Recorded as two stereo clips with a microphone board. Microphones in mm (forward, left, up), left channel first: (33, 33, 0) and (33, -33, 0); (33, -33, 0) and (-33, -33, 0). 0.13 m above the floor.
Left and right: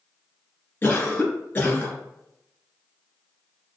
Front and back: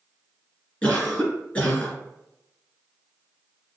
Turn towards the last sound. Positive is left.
turn(degrees=55)